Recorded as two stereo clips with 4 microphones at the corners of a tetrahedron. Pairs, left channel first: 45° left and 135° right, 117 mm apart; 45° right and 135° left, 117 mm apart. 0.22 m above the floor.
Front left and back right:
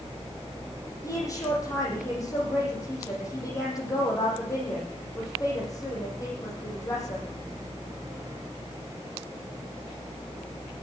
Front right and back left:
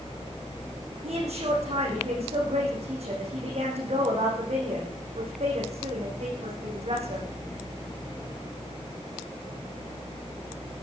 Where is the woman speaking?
105° left, 8 m.